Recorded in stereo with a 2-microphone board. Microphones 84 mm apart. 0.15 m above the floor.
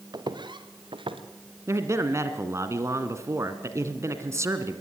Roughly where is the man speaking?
Right.